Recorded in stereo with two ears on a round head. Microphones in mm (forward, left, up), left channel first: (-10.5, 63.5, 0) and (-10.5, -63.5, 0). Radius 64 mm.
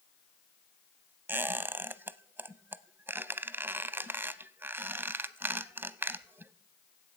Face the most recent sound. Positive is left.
turn(degrees=-15)  # may be behind; listen again after turning